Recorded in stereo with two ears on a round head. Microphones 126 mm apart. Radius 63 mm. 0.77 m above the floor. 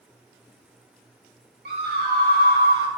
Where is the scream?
70° right (ahead or behind), 1.9 m.